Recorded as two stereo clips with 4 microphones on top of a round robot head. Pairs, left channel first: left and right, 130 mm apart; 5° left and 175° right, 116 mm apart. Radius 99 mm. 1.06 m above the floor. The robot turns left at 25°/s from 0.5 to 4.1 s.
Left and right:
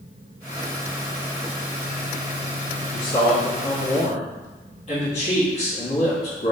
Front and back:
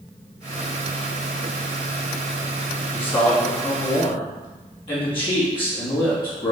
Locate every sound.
2.9 s a man speaking: 80° left, 1.9 m; by 6.5 s 50° left, 1.9 m